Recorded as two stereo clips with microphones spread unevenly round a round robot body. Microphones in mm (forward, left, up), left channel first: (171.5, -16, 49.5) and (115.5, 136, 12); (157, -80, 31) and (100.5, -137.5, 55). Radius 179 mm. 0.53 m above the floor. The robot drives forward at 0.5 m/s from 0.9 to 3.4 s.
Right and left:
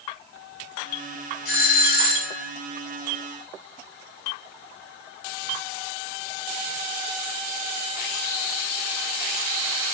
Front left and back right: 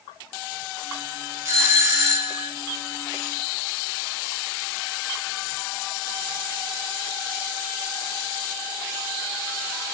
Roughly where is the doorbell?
Right.